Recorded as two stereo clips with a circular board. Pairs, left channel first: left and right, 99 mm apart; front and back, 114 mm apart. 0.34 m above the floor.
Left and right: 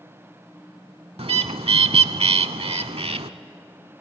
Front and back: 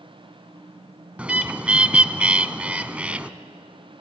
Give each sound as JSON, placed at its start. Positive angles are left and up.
{"t": 1.2, "sound": "a bird", "azimuth_deg": -100, "distance_m": 0.6}